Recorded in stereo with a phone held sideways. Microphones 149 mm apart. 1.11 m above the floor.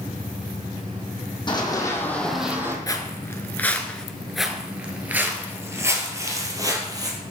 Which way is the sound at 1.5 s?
30° left (ahead or behind).